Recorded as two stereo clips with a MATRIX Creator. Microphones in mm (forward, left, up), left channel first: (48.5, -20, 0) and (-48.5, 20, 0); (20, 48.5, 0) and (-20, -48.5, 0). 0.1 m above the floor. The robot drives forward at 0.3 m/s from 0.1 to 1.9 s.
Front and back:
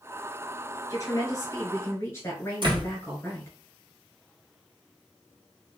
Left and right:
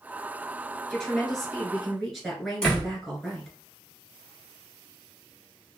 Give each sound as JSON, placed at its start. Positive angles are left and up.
{"t": 0.9, "sound": "a woman speaking", "azimuth_deg": -15, "distance_m": 1.3}
{"t": 2.6, "sound": "a door slam", "azimuth_deg": 145, "distance_m": 1.6}